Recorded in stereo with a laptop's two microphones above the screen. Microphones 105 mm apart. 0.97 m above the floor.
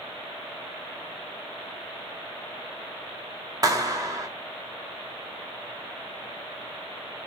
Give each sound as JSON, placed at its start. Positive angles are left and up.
{"t": 3.6, "sound": "a clap", "side_deg": -35, "distance_m": 1.7}